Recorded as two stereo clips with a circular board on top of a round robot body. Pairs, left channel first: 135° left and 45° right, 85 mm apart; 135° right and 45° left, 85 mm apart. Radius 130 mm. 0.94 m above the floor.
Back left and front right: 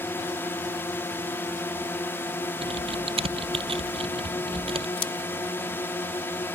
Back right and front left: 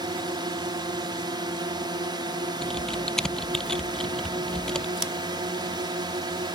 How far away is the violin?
No violin in this recording.